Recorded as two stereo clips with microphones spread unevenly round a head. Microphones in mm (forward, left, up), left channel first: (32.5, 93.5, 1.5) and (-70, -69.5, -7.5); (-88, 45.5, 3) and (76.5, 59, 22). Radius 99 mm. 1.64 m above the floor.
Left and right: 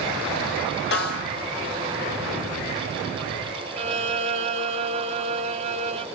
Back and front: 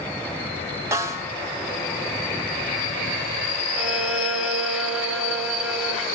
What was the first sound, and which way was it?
A snare drum, 70° left.